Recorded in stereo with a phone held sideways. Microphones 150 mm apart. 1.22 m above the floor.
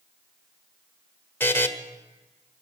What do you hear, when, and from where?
1.4 s a buzzer: 15° left (ahead or behind), 1.1 m